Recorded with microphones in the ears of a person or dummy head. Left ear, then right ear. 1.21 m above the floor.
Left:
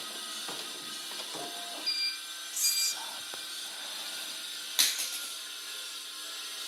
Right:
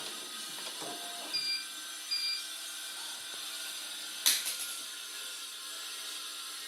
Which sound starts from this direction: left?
Whispering, at 2.5 s.